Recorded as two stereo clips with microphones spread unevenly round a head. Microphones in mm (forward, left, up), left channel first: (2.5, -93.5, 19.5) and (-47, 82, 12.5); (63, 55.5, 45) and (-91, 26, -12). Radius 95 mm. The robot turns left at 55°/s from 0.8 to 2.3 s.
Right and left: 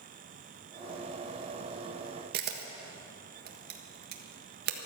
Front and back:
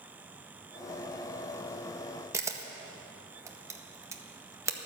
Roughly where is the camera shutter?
Behind left.